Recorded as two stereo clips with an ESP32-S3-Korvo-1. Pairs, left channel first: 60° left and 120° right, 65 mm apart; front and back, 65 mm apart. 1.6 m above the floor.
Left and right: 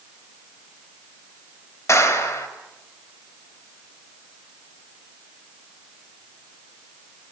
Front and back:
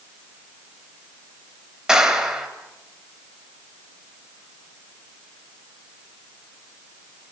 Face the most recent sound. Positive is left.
turn(degrees=95)